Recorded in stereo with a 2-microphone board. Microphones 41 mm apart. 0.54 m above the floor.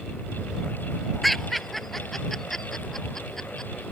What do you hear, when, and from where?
1.2 s laughter: centre (ahead or behind); by 3.7 s 10° left (ahead or behind)